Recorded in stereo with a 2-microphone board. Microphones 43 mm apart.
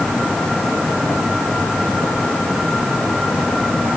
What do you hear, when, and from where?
Only background noise.